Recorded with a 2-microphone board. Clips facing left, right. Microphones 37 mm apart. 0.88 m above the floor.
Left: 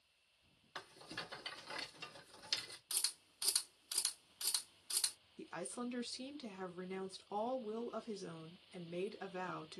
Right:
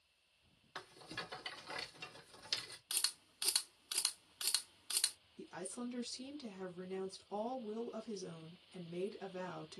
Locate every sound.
0.8 s a rattle: 10° right (ahead or behind), 1.6 m
2.9 s a camera shutter: 55° right (ahead or behind), 0.6 m
5.4 s a woman speaking: 35° left (ahead or behind), 1.0 m